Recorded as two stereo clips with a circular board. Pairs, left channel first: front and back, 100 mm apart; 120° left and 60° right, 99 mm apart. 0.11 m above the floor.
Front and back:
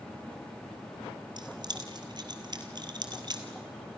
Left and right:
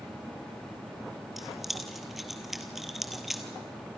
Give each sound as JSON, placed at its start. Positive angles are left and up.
{"t": 1.4, "sound": "keys jangling", "azimuth_deg": -150, "distance_m": 1.8}